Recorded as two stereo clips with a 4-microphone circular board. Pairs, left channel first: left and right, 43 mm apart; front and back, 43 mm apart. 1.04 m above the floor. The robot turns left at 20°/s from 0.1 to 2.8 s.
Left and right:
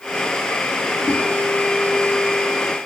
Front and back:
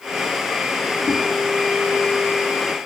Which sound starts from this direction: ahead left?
A whoosh, at 1.1 s.